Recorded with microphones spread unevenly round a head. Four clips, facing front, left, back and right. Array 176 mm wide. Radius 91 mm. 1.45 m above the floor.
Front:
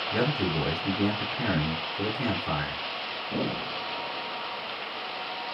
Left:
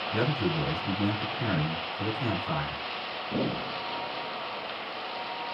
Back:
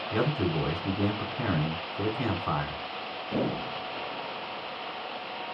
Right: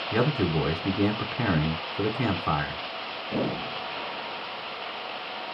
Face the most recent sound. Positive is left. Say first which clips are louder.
# right 4 dB, even
turn(degrees=-95)